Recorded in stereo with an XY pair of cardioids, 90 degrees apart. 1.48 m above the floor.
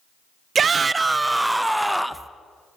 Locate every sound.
0.6 s a shout: 55° right, 0.6 m; by 2.3 s straight ahead, 1.8 m